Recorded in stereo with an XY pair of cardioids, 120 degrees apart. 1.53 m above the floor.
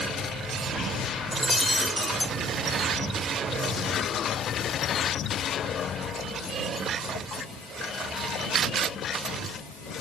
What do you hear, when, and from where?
1.3 s breaking glass: 5° left